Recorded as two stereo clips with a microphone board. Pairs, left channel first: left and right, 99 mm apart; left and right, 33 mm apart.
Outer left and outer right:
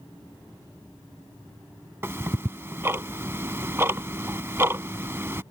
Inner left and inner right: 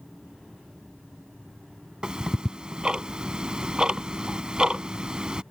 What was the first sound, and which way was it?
Ticking, 25° right (ahead or behind).